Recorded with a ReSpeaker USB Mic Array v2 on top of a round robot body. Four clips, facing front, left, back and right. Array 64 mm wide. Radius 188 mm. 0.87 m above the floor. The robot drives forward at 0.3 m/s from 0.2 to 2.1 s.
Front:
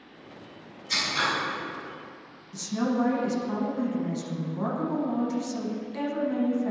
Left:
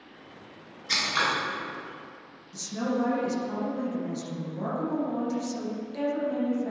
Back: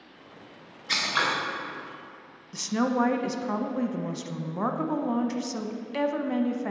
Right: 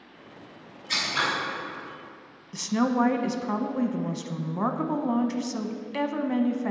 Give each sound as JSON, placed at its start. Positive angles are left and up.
{"t": 0.9, "sound": "scissors", "azimuth_deg": 160, "distance_m": 1.5}
{"t": 2.5, "sound": "a woman speaking", "azimuth_deg": -130, "distance_m": 0.7}